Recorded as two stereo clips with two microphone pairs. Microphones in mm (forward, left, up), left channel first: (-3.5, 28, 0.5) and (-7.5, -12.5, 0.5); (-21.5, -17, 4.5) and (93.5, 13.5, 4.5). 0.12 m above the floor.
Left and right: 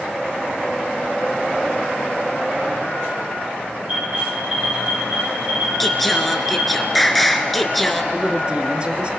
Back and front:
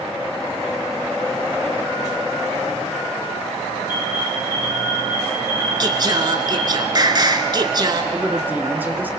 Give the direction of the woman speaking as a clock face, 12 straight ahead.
2 o'clock.